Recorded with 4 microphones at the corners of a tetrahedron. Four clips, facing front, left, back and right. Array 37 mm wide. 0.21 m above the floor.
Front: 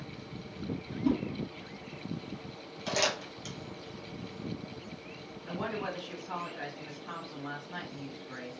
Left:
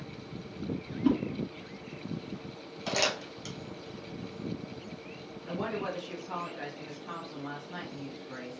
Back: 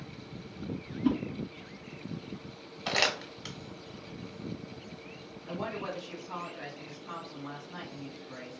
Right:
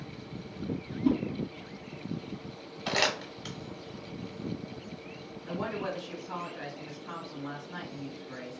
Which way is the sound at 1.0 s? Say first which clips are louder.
Even, even; 130° left.